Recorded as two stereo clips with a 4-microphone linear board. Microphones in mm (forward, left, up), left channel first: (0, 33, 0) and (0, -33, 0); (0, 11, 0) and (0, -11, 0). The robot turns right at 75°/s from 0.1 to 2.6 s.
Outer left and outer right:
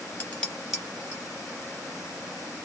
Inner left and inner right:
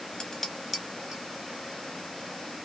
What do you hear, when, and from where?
0.2 s dishes clattering: 25° left (ahead or behind), 0.8 m; by 1.2 s 40° right (ahead or behind), 0.8 m